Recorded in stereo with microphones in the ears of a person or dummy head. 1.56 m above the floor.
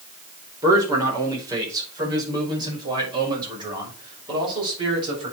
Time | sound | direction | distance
0.6 | a man speaking | 15° right (ahead or behind) | 4.5 m